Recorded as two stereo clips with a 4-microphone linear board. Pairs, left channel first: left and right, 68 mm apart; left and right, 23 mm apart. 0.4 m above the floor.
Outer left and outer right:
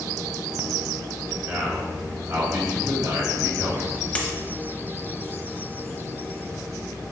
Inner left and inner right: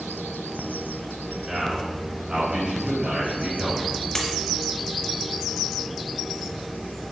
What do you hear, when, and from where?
1.5 s a man speaking: 40° right (ahead or behind), 1.2 m; by 4.0 s 70° right (ahead or behind), 2.5 m
4.2 s a dropped coin: 20° left (ahead or behind), 0.6 m